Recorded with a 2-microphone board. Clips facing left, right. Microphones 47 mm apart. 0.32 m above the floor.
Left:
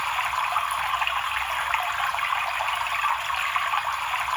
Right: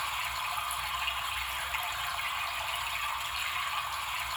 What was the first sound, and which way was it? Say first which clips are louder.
Running water: left 9 dB; 60° left (ahead or behind).